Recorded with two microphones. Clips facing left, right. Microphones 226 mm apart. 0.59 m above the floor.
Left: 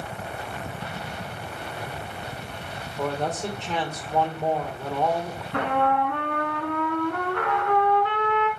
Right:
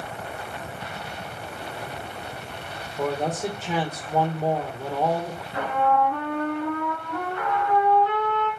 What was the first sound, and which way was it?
A man speaking, 10° right (ahead or behind).